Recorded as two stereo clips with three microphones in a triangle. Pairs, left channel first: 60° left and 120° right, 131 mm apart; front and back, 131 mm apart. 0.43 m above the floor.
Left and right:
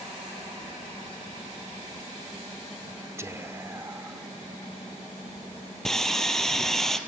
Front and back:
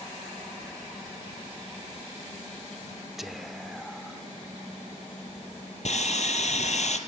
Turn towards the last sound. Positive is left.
turn(degrees=-25)